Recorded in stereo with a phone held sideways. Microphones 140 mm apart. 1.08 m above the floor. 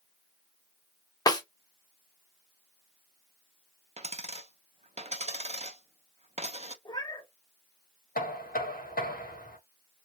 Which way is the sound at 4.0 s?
45° right (ahead or behind).